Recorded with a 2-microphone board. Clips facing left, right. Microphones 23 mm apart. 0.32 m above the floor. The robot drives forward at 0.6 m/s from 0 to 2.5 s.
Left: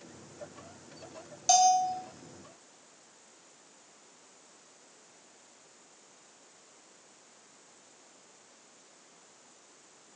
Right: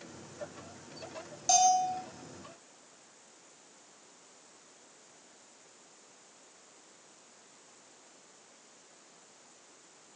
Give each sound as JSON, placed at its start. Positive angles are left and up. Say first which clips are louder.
{"t": 1.5, "sound": "a bell", "louder": "left 2 dB", "side_deg": 20, "distance_m": 0.7}